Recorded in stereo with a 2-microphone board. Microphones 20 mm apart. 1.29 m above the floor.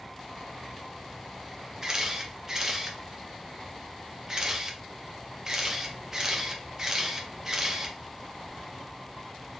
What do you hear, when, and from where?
1.8 s a camera shutter: 25° right (ahead or behind), 0.6 m